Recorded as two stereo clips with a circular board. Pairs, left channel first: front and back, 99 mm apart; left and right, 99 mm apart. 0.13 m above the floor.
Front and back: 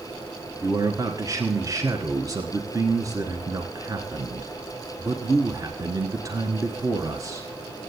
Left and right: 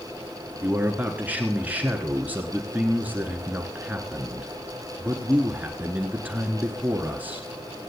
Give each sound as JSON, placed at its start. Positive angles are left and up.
{"t": 0.6, "sound": "a man speaking", "azimuth_deg": -155, "distance_m": 1.3}